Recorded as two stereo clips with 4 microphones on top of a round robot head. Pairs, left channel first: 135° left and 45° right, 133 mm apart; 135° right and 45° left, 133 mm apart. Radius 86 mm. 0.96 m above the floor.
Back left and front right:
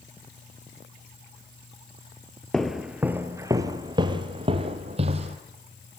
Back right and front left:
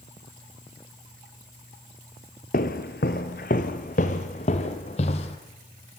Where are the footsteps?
140° right, 1.2 m; by 5.4 s 85° right, 2.5 m.